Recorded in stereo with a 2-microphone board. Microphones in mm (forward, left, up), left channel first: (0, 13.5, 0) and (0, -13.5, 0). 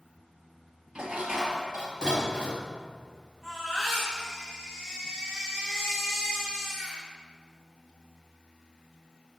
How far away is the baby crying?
About 4 m.